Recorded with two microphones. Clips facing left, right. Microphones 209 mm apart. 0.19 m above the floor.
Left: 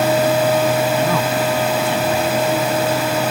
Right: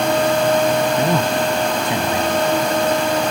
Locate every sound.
1.0 s a man speaking: 15° right (ahead or behind)